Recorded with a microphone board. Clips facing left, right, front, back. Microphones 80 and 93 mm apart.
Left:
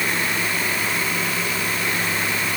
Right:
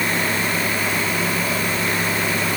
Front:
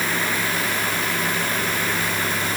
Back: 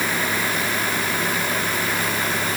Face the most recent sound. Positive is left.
No sound to turn to.